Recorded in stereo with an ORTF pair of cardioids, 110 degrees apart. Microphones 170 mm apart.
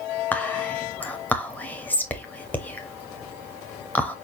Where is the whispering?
10° left, 0.9 m.